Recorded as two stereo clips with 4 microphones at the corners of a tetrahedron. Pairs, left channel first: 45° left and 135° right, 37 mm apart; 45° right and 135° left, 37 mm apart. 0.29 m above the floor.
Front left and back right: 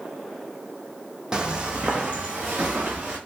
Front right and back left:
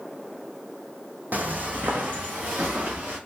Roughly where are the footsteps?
Behind.